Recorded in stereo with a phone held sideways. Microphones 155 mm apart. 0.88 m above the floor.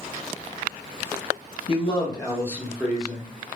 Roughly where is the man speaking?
Left.